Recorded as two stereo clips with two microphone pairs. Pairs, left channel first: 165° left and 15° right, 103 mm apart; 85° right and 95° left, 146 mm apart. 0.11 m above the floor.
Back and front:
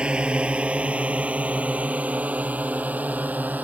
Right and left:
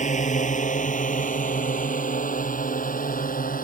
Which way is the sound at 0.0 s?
95° right.